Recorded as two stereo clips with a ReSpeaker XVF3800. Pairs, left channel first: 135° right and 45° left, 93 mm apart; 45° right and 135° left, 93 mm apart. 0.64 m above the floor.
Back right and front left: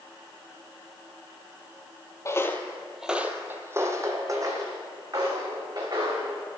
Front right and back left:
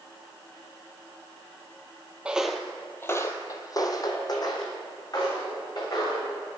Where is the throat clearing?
I don't hear throat clearing.